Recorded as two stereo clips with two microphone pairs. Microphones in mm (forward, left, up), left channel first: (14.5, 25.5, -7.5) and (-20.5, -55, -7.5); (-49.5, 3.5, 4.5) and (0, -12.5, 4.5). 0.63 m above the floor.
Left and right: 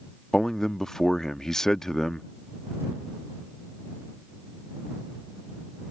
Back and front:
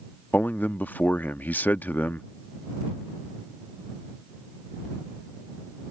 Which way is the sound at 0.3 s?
150° left.